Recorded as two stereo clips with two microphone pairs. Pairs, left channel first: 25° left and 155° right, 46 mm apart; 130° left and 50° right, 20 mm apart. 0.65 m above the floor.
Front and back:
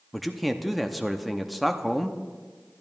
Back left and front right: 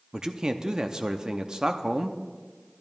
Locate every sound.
0.1 s a man speaking: 65° right, 0.6 m